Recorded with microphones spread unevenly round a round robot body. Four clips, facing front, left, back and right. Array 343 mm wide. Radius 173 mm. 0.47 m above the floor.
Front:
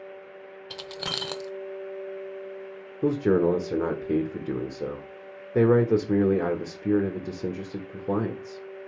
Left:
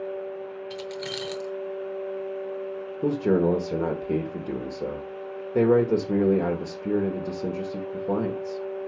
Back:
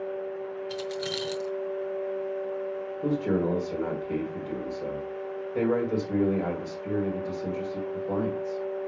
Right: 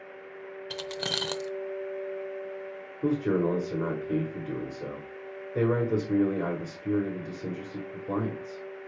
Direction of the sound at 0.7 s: 50° right.